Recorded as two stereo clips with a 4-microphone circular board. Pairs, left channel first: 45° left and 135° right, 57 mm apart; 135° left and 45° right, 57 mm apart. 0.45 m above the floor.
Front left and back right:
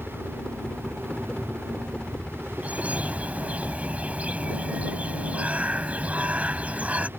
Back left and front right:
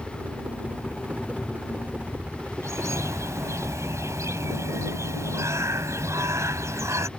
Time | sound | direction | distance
0.0 | a helicopter | 15° right | ?
2.6 | a bird | 70° right | ?